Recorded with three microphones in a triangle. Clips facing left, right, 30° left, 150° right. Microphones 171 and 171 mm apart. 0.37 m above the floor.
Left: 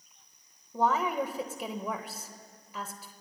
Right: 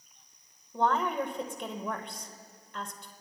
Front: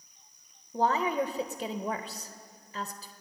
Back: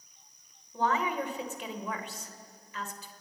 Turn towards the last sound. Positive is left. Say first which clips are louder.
# even, front 3 dB
turn(degrees=10)